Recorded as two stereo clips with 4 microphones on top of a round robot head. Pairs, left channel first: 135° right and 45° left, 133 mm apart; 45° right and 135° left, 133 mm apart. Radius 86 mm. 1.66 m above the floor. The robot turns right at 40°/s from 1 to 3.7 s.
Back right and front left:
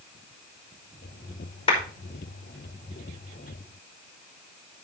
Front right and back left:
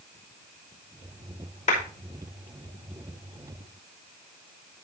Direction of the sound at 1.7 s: 85° right.